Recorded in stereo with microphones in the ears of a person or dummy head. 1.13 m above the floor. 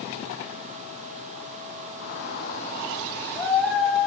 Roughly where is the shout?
Left.